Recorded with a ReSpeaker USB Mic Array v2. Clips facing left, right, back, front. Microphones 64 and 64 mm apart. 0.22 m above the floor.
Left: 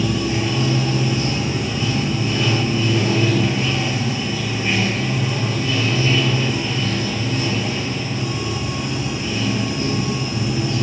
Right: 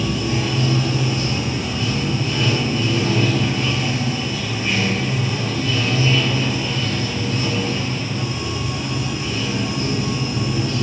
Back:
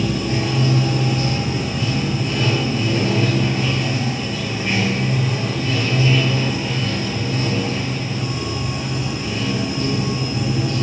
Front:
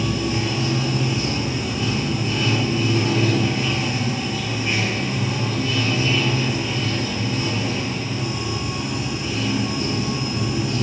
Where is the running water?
150° left, 1.8 m.